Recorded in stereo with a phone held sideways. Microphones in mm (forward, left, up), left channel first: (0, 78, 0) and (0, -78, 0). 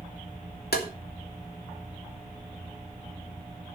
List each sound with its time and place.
0.7 s tapping: 80° left, 2.5 m